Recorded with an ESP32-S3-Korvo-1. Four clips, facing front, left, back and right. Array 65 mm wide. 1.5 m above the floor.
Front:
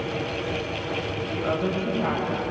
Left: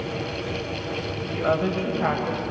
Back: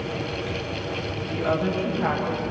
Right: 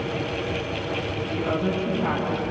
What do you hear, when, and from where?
1.2 s a woman speaking: 90° left, 9.5 m